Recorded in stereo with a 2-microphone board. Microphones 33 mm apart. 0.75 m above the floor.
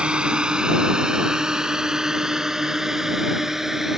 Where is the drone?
30° right (ahead or behind); by 4.0 s 10° right (ahead or behind).